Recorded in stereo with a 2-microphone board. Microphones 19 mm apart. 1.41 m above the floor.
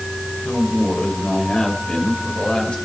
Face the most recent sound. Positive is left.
turn(degrees=80)